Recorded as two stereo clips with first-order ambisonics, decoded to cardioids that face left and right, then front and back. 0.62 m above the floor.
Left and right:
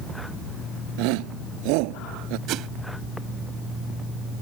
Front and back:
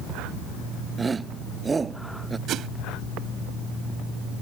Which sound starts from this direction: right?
A shout, at 1.0 s.